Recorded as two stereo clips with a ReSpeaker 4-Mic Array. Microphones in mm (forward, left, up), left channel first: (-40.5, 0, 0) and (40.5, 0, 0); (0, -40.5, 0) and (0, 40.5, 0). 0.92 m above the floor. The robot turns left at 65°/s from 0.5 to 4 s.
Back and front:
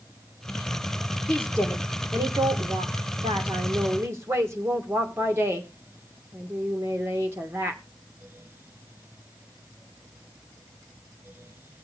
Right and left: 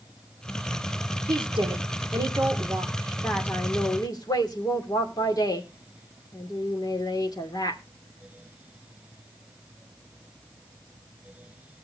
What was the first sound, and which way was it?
A woman speaking, 120° left.